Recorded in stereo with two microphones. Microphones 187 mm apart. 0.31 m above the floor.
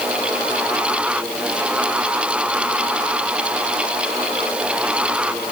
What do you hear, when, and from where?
Only background noise.